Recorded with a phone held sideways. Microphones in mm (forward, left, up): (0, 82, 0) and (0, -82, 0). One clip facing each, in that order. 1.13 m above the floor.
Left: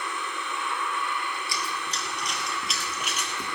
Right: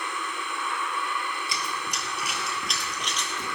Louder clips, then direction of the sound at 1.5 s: Even; 25° right (ahead or behind).